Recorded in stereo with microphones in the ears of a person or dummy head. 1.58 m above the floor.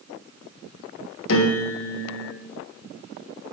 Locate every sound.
1.3 s a piano: 70° left (ahead or behind), 1.5 m